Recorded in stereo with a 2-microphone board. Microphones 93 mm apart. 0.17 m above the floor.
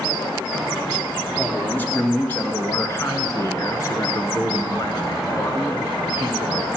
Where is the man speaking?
15° left (ahead or behind), 3 m; by 6.7 s 55° left (ahead or behind), 2.5 m.